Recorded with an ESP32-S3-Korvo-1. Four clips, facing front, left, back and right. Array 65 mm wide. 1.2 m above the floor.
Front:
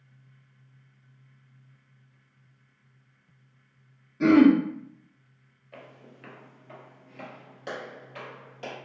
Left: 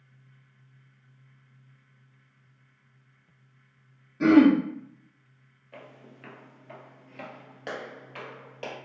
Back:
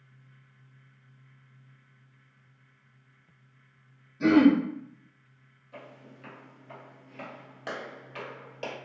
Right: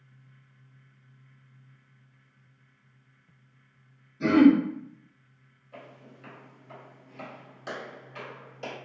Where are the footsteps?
45° left, 1.5 m; by 8.8 s 135° left, 2.0 m.